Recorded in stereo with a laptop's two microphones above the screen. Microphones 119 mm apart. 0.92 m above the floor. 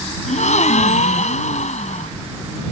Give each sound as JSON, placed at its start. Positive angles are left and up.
{"t": 0.3, "sound": "a gasp", "side_deg": 80}